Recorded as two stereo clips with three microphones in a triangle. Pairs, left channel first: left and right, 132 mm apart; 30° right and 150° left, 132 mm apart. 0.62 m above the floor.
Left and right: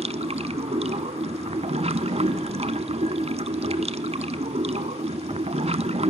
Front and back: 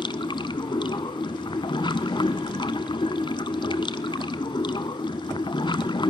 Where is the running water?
75° right, 0.7 m.